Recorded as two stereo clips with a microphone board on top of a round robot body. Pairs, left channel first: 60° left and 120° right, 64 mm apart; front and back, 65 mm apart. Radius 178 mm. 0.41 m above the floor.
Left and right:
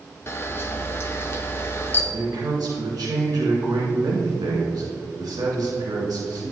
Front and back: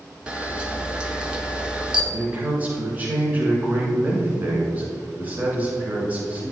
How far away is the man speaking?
About 2.0 m.